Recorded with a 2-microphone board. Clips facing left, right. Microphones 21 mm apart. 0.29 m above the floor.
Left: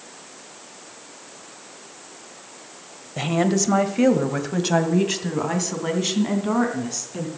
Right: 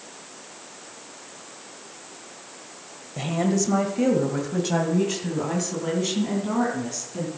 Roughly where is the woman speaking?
Left.